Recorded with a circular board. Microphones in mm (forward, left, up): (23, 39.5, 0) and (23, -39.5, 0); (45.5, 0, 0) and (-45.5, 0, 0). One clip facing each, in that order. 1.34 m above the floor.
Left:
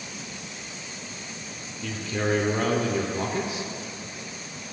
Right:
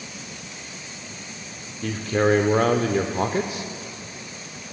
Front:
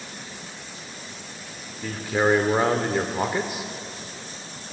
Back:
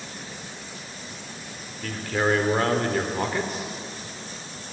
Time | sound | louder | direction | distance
1.8 | a man speaking | right 7 dB, front 2 dB | 75° right | 0.6 m